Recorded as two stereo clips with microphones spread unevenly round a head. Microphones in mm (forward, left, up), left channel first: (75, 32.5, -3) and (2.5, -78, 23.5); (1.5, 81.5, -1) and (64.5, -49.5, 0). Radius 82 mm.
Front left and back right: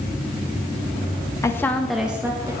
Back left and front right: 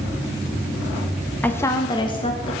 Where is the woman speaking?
45° left, 0.9 m; by 2.5 s 160° left, 1.2 m.